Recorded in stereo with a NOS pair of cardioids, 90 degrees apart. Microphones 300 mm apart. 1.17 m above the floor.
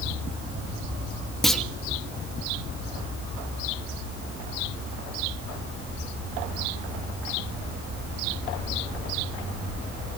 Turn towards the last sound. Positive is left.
turn(degrees=0)